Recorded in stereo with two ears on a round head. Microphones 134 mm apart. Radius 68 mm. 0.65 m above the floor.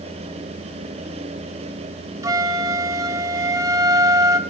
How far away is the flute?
About 1.7 m.